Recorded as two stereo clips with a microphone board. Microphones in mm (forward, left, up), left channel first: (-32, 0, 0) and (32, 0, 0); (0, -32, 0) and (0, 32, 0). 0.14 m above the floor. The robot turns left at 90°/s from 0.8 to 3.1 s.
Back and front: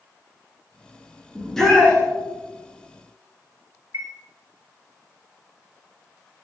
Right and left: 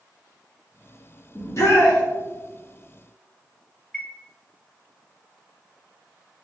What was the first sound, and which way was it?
A shout, 80° right.